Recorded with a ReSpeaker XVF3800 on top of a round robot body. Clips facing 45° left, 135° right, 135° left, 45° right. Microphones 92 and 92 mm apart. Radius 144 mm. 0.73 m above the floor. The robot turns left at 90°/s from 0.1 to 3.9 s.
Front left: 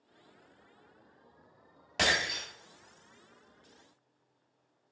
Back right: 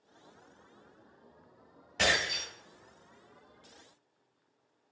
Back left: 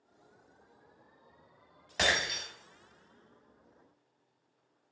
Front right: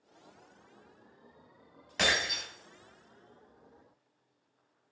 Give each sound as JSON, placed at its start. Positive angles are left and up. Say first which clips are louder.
{"t": 2.0, "sound": "breaking glass", "louder": "even, even", "azimuth_deg": 50, "distance_m": 2.0}